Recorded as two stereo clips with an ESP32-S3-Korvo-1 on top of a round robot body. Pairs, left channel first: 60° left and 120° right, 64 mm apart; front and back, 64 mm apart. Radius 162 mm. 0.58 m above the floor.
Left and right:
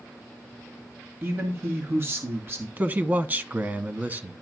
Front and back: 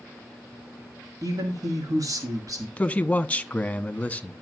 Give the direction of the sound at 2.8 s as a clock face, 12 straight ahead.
2 o'clock.